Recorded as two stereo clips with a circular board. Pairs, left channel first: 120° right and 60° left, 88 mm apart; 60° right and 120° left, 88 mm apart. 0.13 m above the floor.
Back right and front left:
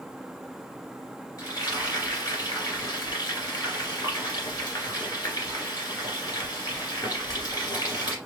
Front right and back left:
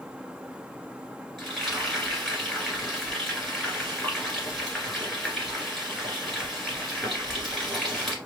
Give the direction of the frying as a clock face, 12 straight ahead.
5 o'clock.